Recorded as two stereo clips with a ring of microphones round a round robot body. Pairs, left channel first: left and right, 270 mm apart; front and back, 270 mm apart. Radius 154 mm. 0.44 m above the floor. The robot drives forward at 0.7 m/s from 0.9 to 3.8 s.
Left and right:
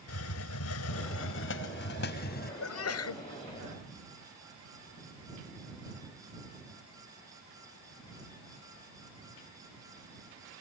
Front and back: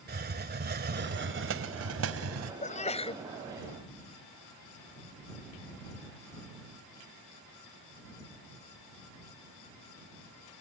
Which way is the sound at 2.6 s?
60° left.